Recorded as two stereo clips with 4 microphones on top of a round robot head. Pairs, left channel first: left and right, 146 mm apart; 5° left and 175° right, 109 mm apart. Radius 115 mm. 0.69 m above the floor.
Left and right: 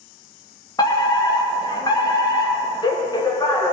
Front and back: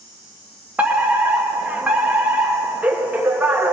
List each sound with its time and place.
0.8 s a fire alarm: 120° left, 1.6 m